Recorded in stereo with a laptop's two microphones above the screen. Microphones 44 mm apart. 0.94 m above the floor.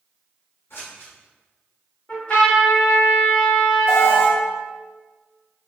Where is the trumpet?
30° left (ahead or behind), 1.8 m.